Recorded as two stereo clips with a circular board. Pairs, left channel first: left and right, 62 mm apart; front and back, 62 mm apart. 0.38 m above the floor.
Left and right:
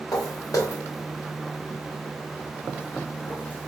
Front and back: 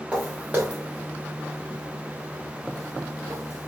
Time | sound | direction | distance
0.1 | footsteps | 110° left | 2 m